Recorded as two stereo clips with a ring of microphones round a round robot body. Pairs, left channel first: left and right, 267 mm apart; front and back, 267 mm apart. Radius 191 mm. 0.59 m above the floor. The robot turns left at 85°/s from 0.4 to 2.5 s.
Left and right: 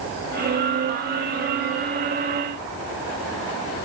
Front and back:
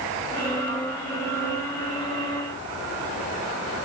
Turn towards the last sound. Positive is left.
No sound to turn to.